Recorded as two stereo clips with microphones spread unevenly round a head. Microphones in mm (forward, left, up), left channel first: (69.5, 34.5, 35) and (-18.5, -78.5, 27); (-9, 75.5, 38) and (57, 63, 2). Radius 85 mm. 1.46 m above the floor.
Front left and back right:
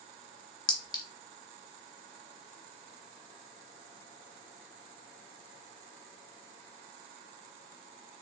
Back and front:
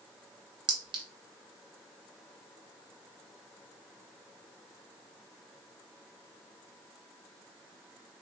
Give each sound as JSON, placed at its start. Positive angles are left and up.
{"t": 0.7, "sound": "a clink", "azimuth_deg": -10, "distance_m": 1.1}